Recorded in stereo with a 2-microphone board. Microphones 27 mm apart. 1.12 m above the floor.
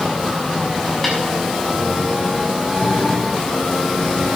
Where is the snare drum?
5° left (ahead or behind), 6.5 m.